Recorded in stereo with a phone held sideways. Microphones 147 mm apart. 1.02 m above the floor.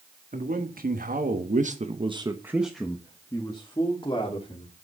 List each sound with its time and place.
0.3 s a man speaking: 75° right (ahead or behind), 2 m; by 4.7 s 35° left (ahead or behind), 3 m